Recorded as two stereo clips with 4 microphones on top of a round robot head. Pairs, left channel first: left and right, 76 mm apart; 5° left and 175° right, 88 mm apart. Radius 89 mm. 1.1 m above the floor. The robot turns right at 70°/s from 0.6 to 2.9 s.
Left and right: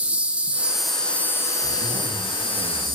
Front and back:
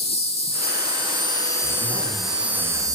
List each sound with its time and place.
0.0 s an insect: 15° right, 0.8 m; by 2.9 s 145° left, 0.8 m
1.6 s a zipper: 75° left, 4.5 m; by 2.9 s 165° left, 4.5 m